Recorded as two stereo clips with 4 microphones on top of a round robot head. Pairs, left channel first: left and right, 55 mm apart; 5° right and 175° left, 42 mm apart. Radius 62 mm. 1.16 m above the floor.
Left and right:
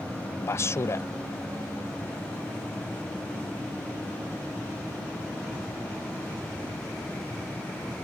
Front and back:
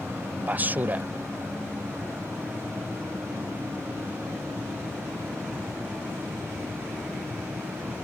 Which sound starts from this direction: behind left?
A man speaking, at 0.4 s.